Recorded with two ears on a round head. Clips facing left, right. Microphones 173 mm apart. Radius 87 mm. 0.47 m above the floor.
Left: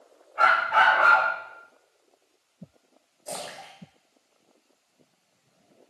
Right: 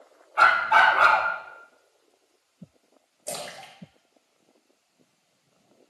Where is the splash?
40° right (ahead or behind), 1.5 m.